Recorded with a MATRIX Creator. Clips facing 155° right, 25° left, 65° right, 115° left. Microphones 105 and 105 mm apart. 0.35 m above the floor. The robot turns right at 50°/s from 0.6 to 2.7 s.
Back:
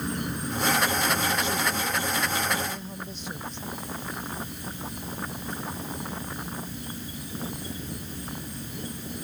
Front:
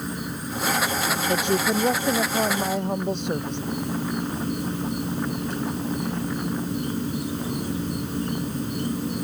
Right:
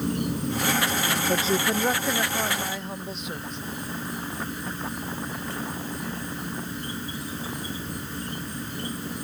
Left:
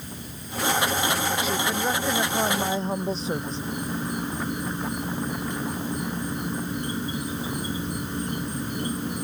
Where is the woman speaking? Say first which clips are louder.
Front 5 dB, right 2 dB; 15° right; by 3.6 s 55° left.